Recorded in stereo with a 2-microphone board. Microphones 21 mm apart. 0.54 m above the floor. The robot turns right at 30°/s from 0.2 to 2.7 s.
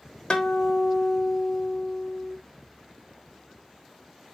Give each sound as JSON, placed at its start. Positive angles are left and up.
{"t": 0.3, "sound": "a guitar", "azimuth_deg": 55, "distance_m": 1.0}